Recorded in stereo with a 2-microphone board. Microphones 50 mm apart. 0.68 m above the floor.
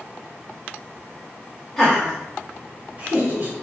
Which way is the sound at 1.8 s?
5° left (ahead or behind).